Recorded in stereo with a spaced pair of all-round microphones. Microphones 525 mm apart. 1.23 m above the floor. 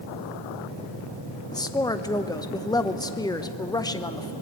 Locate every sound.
1.5 s a woman speaking: 5° left (ahead or behind), 0.8 m